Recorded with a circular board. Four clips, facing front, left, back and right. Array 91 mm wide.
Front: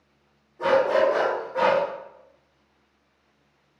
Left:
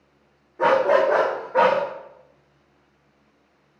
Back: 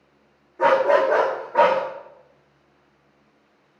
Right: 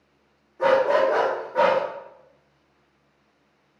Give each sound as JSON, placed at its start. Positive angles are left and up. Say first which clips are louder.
{"t": 0.6, "sound": "a dog barking", "louder": "left 1 dB, back 3 dB", "azimuth_deg": 125, "distance_m": 3.0}